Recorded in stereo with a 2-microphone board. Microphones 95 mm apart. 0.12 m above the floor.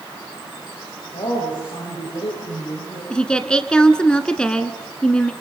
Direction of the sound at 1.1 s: 60° left (ahead or behind).